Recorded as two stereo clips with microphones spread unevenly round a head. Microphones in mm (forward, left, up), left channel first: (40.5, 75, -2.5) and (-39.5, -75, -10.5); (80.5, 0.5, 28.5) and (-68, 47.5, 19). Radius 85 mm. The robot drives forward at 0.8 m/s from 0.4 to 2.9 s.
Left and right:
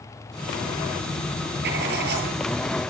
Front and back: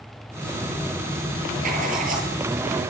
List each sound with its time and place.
1.6 s writing: 150° right, 9 m